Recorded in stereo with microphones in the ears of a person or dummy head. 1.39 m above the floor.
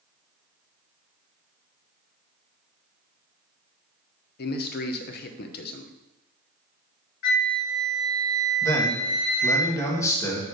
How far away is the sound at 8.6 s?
About 1.2 m.